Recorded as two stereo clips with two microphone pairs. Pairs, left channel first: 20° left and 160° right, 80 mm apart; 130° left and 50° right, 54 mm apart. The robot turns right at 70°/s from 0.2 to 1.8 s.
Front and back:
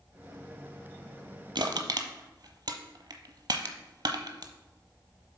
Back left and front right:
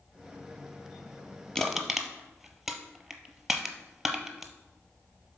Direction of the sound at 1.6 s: 155° right.